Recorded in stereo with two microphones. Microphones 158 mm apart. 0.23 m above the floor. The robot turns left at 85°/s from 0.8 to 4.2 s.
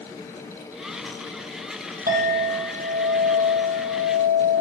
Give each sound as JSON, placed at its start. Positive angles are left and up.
{"t": 2.1, "sound": "a clink", "azimuth_deg": -70, "distance_m": 5.0}